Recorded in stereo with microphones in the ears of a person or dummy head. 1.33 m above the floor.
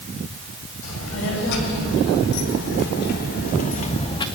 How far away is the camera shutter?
I don't hear a camera shutter.